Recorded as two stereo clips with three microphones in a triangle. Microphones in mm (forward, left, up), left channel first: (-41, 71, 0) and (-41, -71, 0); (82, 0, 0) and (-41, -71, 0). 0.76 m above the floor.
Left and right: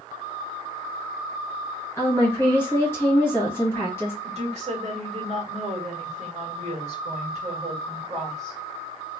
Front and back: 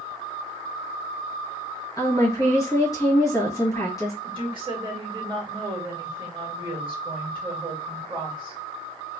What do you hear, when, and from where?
2.0 s a woman speaking: 45° left, 1.1 m
4.2 s a woman speaking: 110° right, 1.6 m